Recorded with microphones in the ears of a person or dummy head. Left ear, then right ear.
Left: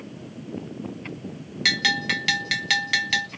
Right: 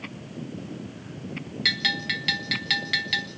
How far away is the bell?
About 0.5 m.